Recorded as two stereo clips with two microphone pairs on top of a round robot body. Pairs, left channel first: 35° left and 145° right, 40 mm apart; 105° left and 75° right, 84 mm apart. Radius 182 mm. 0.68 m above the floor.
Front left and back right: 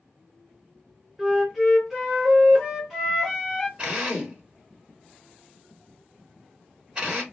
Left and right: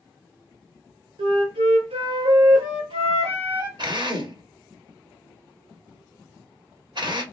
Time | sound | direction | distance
1.2 | a flute | 60° right | 0.6 m
3.8 | a drill | 85° right | 2.0 m